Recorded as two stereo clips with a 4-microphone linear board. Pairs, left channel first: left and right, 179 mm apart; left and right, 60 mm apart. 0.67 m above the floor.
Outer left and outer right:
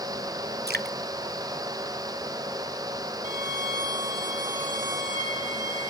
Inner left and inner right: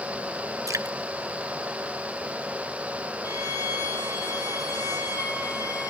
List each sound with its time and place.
0.7 s dripping: 65° right (ahead or behind), 0.7 m
3.2 s a violin: 80° left, 8.5 m